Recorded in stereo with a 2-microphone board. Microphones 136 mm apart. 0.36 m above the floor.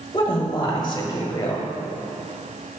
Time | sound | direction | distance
0.1 | a woman speaking | 30° left (ahead or behind) | 1.1 m